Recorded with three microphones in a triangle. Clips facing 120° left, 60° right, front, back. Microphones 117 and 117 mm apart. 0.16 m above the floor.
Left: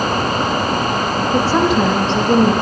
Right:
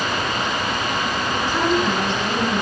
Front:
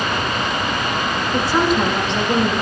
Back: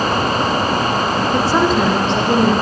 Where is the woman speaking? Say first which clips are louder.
Left 6 dB, back 1 dB; 120° left, 9 m.